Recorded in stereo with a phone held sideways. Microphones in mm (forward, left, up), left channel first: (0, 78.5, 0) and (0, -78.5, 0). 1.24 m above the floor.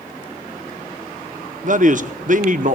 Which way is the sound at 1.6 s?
55° right (ahead or behind).